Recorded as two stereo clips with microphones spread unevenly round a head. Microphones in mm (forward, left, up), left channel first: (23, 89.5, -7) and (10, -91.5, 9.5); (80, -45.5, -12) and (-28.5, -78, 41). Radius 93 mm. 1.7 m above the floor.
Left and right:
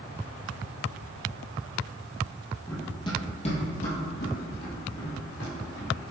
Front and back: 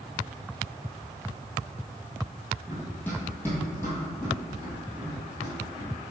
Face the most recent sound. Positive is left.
turn(degrees=100)